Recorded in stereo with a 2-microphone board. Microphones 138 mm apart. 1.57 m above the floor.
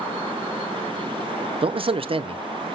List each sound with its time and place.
1.6 s a man speaking: 40° right (ahead or behind), 0.6 m